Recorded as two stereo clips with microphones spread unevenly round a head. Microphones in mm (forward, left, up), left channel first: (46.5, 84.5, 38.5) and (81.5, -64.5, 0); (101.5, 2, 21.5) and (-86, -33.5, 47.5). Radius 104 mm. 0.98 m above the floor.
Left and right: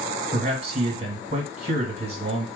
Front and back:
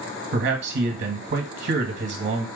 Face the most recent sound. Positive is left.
turn(degrees=-130)